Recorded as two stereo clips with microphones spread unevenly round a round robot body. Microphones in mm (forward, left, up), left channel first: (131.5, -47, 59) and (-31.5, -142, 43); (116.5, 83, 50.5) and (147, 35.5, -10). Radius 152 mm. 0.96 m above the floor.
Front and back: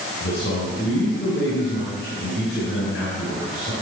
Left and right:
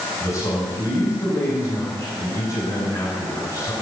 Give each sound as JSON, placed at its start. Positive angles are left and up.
{"t": 0.2, "sound": "a man speaking", "azimuth_deg": 90, "distance_m": 6.5}